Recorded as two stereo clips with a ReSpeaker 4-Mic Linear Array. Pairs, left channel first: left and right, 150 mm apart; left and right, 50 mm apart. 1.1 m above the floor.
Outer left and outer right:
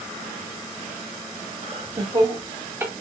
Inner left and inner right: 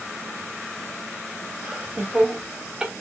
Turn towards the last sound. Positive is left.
turn(degrees=-10)  # may be behind; listen again after turning